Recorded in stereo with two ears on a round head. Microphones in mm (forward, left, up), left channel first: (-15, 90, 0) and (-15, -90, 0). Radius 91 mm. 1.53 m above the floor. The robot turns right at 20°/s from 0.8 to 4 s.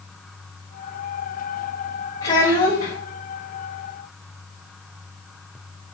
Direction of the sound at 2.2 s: 30° left (ahead or behind).